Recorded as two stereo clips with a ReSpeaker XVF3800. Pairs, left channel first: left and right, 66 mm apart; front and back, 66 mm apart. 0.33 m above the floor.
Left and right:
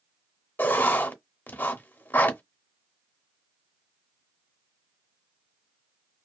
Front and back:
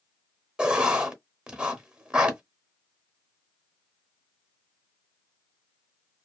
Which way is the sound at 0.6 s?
120° left.